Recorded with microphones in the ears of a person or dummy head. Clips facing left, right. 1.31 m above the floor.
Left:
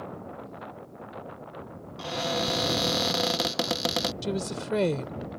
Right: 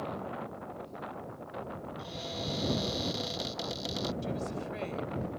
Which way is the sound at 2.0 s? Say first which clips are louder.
Left 13 dB; 85° left.